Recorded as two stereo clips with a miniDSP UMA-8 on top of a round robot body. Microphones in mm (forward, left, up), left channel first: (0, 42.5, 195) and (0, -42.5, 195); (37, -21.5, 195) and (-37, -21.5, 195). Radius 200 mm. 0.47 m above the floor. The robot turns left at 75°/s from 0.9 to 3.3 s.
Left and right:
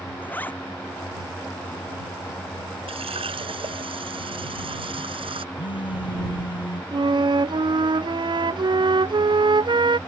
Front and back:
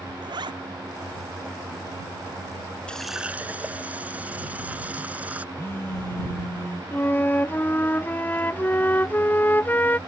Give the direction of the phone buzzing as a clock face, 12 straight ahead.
10 o'clock.